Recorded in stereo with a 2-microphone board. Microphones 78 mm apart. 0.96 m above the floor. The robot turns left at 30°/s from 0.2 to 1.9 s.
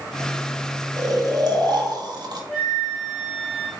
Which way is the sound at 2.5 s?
15° left (ahead or behind).